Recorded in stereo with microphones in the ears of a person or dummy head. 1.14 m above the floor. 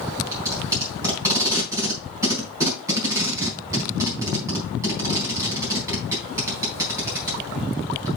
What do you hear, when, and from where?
0.3 s tape being pulled: 15° right (ahead or behind), 3.5 m